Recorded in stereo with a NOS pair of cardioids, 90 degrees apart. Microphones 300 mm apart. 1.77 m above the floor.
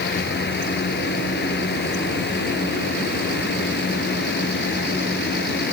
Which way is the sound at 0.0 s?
35° left.